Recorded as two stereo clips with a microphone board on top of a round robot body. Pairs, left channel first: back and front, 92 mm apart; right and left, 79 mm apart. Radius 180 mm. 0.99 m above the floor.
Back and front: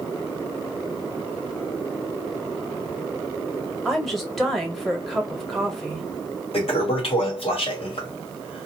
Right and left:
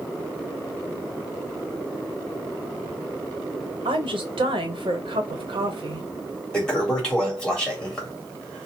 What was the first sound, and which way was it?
A woman speaking, 90° left.